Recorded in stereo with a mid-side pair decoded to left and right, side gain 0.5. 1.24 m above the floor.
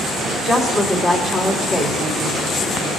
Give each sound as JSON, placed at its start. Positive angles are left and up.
{"t": 0.4, "sound": "a woman speaking", "azimuth_deg": 40, "distance_m": 3.0}